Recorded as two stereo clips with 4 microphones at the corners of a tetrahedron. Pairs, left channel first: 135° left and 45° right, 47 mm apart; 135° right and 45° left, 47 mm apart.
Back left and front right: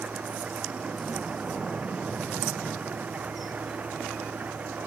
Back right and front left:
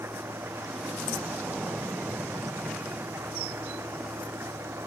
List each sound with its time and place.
0.0 s an engine running: 10° left